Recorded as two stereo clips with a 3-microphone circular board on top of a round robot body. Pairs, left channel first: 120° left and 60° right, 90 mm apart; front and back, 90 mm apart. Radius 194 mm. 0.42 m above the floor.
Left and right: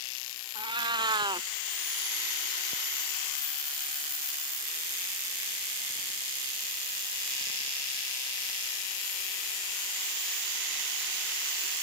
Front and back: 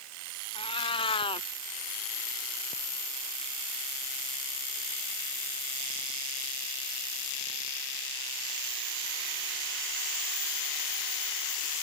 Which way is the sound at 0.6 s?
25° right.